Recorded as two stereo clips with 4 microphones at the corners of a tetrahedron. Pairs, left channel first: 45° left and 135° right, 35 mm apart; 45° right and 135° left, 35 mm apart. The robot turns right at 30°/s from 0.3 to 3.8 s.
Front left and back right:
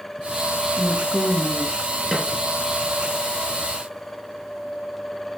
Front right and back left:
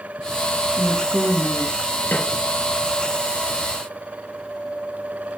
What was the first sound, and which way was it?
A woman speaking, 155° left.